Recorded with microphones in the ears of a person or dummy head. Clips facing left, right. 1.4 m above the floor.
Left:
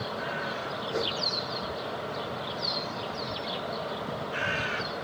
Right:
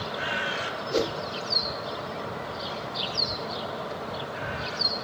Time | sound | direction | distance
0.9 | a whoosh | 40° right (ahead or behind) | 0.7 m